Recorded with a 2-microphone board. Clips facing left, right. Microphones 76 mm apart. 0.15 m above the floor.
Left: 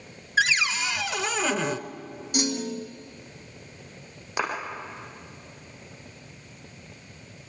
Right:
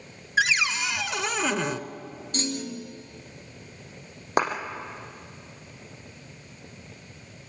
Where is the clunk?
15° left (ahead or behind), 1.4 m.